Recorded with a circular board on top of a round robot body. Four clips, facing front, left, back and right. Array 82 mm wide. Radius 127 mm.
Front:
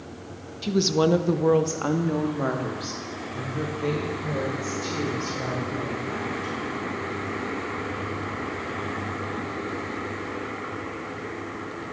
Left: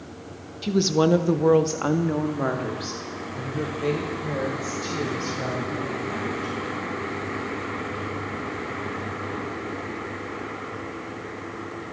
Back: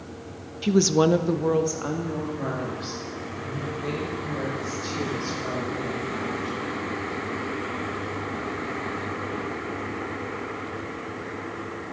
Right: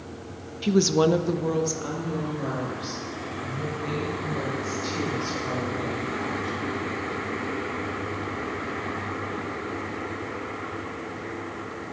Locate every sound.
0.6 s a woman speaking: 145° right, 0.8 m; by 6.6 s 55° left, 5 m